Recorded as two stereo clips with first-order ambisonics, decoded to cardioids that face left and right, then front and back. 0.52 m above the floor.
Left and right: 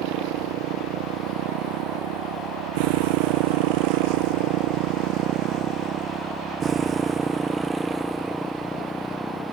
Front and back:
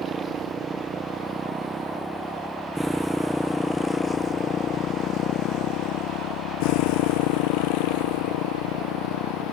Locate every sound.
0.0 s a motorcycle: 115° right; by 9.5 s 10° left